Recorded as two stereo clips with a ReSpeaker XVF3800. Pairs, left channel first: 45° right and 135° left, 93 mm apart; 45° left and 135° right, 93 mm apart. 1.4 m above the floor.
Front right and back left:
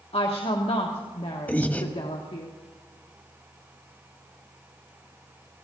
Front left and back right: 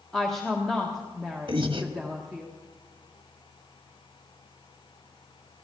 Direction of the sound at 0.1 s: 40° right.